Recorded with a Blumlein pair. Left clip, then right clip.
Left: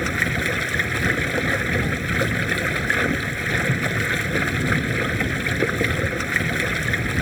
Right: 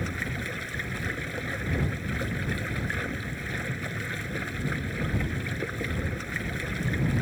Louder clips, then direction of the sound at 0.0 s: Left 11 dB; 30° left.